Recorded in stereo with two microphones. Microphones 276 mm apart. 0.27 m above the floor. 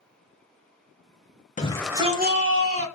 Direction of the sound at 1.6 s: 25° left (ahead or behind).